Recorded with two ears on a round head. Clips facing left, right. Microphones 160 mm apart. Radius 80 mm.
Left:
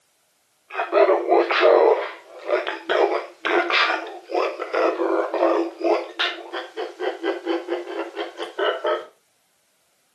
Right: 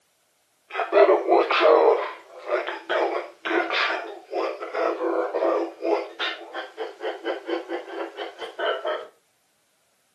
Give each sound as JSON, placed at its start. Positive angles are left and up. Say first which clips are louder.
{"t": 0.7, "sound": "laughter", "louder": "even", "side_deg": -10, "distance_m": 1.5}